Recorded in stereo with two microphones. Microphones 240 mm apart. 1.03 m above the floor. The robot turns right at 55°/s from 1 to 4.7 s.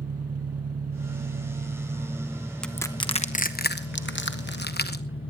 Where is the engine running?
80° right, 0.8 m; by 5.3 s 125° left, 0.8 m.